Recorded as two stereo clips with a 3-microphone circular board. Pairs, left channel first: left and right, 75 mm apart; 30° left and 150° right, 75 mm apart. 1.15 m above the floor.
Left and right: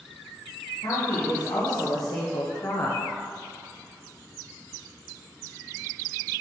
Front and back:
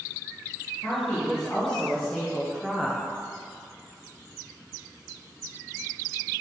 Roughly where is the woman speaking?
Left.